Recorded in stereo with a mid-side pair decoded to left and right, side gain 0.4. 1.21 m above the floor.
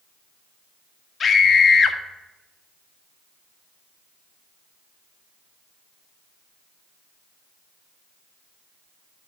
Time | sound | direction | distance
1.2 | a scream | 50° left | 1.5 m